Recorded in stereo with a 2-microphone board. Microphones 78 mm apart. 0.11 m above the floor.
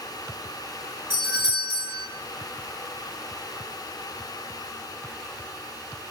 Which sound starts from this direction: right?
A doorbell, at 1.1 s.